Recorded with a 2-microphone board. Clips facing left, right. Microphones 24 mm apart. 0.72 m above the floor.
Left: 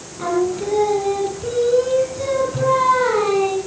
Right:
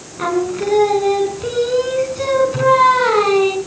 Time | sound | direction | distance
0.2 | singing | 35° right (ahead or behind) | 3 m